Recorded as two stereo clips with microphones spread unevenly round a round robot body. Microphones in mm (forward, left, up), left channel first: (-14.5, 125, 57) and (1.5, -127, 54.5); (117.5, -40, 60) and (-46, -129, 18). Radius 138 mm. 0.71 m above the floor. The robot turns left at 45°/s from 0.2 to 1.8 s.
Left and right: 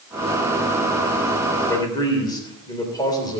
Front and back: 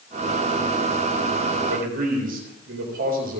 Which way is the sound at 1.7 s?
175° left.